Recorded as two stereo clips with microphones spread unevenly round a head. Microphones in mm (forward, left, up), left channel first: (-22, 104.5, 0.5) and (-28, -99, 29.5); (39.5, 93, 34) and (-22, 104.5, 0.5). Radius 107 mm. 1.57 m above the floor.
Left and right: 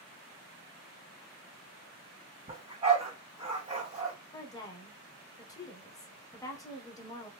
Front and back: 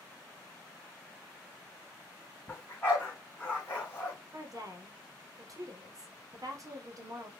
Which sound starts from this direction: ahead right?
A dog barking, at 2.5 s.